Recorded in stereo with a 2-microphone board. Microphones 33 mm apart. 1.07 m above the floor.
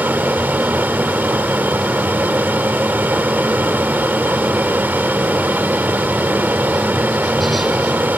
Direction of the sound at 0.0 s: 70° right (ahead or behind).